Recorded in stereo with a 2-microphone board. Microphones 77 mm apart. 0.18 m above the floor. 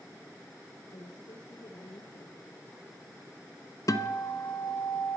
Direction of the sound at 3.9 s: 55° left (ahead or behind).